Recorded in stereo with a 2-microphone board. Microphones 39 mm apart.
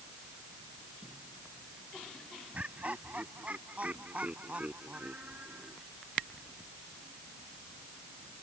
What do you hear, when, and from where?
2.5 s laughter: 40° right (ahead or behind)